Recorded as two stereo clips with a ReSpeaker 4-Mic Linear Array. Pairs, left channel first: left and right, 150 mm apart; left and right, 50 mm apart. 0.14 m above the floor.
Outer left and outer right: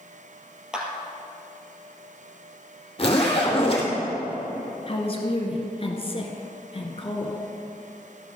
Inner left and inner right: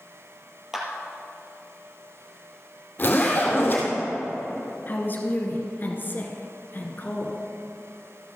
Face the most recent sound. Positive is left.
turn(degrees=40)  # may be behind; listen again after turning